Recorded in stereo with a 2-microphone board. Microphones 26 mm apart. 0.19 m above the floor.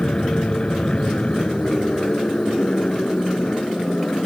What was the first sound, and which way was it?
An aircraft, 40° left (ahead or behind).